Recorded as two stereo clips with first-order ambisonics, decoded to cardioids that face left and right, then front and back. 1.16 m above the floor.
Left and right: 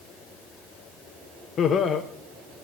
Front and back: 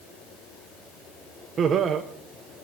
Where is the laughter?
130° left, 0.8 m.